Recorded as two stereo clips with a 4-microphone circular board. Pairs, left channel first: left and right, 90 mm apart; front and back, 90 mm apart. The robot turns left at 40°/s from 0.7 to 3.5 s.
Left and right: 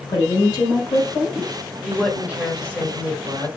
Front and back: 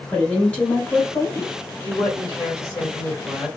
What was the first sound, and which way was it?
A woman speaking, 70° left.